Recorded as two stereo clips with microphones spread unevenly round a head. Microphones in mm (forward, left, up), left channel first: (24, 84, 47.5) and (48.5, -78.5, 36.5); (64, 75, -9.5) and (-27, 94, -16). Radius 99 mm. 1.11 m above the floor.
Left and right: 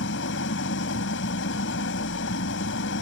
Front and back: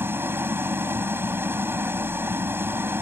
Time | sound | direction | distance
0.0 | an engine running | 100° left | ?